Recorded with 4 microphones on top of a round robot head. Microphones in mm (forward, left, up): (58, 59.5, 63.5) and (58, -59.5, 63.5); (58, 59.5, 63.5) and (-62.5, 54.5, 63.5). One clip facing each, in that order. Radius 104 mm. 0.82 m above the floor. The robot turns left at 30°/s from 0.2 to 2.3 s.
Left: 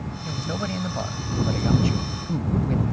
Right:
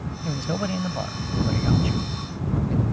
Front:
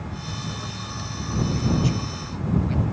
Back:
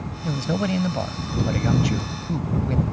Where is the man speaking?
155° right; by 2.8 s 140° left.